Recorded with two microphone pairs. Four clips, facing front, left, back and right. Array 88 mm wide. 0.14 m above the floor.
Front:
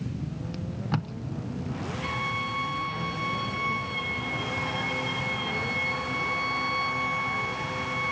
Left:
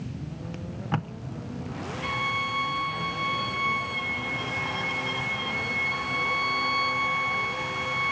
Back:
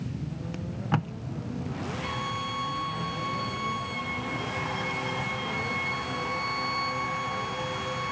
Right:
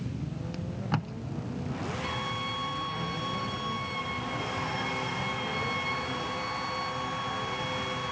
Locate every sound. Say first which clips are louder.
0.5 s tape being pulled: left 2 dB, back 3 dB; 165° left, 0.7 m
2.0 s a violin: left 4 dB, front 2 dB; 50° left, 2.5 m